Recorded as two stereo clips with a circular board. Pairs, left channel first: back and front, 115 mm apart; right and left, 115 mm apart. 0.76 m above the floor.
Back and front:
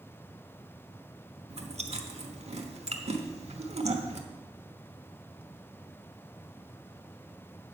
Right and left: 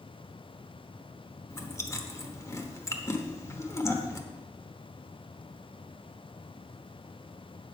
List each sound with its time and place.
1.5 s chewing: 25° right, 1.1 m